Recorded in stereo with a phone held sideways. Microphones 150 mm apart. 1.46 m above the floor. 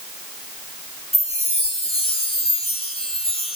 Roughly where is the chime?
Left.